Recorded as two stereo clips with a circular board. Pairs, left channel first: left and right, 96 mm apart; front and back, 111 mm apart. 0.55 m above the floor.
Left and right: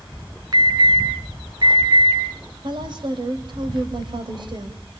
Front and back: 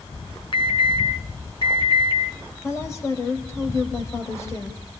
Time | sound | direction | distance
0.5 | an alarm | 45° right | 4.5 m
2.6 | a woman speaking | 60° right | 3 m